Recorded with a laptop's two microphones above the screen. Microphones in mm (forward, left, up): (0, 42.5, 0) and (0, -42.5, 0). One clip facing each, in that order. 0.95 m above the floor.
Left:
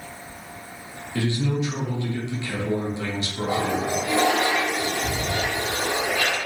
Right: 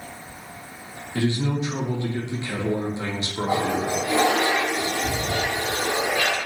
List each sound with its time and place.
1.1 s a man speaking: 25° right (ahead or behind), 0.5 m
3.5 s a toilet flushing: 25° right (ahead or behind), 1.0 m